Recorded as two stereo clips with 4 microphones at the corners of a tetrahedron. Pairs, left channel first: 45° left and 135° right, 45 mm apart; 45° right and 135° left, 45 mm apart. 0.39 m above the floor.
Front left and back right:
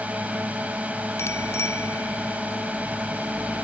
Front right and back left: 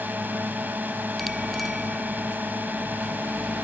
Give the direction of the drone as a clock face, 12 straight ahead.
6 o'clock.